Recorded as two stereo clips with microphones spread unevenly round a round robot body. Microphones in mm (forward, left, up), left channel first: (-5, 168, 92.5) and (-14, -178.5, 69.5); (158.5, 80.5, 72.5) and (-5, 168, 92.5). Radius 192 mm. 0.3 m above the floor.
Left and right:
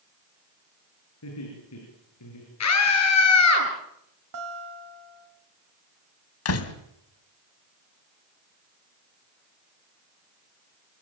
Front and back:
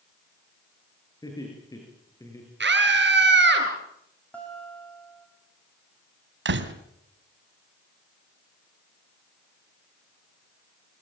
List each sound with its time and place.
1.2 s laughter: 40° left, 8.5 m; by 2.5 s 45° left, 8 m
2.6 s a scream: 135° left, 7 m
4.3 s a guitar: 110° right, 4 m
6.5 s a door slam: 135° left, 2 m